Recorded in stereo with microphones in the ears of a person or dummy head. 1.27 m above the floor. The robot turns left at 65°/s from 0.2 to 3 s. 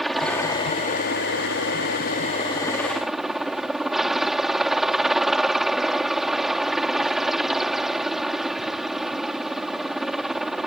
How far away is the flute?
I don't hear a flute.